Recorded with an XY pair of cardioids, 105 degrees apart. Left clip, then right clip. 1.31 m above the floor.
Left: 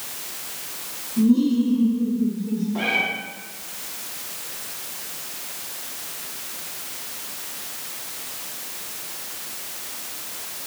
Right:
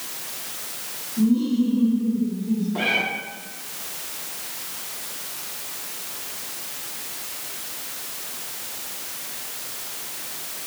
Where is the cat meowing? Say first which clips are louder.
Even; 15° right, 1.6 m.